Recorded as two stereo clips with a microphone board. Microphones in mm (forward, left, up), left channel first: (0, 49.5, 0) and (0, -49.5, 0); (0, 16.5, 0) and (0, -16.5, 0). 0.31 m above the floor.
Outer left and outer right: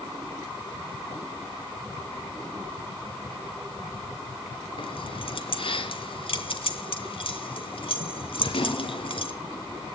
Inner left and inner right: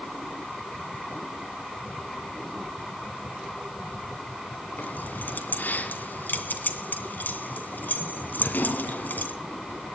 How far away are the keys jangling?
About 2.5 m.